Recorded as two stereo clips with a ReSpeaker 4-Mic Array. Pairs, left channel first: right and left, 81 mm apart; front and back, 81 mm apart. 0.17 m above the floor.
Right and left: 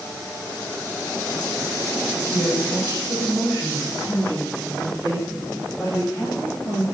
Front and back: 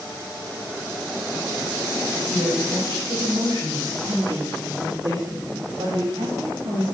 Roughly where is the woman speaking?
Behind right.